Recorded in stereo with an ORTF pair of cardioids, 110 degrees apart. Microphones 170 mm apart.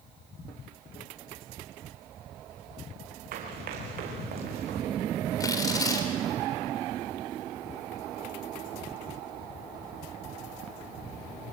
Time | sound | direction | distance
3.3 | running footsteps | 60° right | 5.5 m
5.4 | tearing paper | 20° left | 4 m